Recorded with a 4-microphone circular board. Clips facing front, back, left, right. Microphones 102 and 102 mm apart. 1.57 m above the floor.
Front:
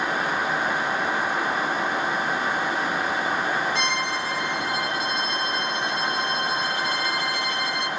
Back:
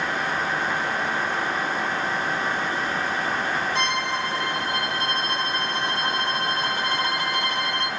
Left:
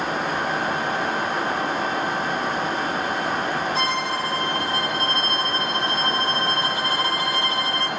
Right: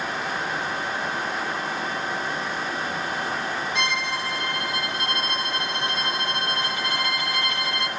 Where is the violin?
140° left, 2 m.